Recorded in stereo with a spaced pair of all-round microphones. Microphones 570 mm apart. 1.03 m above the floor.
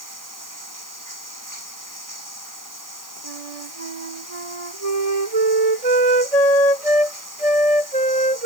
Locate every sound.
0.0 s running water: 30° right (ahead or behind)
3.2 s a flute: 85° right